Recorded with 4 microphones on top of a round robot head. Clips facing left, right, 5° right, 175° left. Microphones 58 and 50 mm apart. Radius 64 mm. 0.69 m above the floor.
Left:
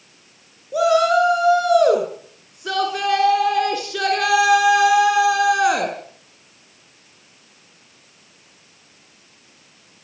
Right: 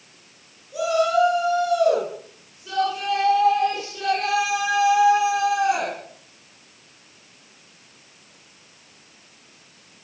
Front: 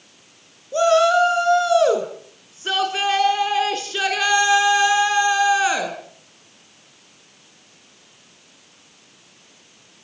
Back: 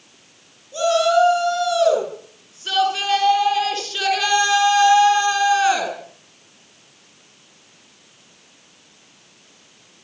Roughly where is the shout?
Ahead left.